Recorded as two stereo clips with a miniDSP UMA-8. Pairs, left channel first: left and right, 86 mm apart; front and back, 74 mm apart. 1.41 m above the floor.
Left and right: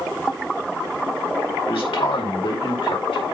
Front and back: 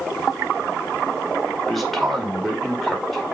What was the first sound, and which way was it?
A man speaking, 90° left.